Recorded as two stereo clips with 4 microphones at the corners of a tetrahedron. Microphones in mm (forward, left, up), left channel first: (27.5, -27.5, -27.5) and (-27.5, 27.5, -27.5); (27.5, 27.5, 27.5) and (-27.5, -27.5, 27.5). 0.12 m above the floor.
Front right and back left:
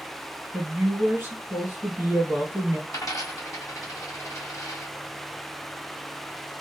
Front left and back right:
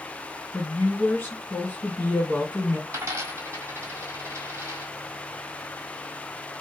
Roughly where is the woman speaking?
Left.